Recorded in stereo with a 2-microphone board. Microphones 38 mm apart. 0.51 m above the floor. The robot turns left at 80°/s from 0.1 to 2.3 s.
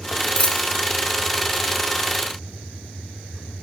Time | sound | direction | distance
0.4 | a dropped coin | 40° left (ahead or behind) | 0.8 m